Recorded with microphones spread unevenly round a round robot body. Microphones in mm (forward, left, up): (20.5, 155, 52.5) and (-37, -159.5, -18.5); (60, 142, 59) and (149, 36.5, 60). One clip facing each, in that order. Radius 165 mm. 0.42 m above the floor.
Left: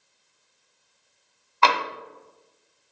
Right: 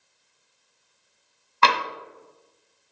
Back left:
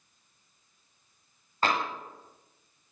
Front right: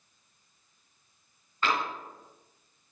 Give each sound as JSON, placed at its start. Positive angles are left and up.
{"t": 1.6, "sound": "tapping", "azimuth_deg": -165, "distance_m": 1.2}